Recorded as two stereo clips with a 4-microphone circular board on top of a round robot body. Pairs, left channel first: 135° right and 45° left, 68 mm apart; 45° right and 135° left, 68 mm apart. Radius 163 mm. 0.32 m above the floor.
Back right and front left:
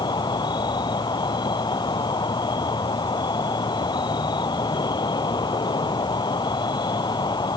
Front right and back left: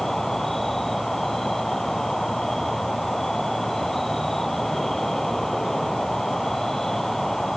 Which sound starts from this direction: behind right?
An insect, at 0.0 s.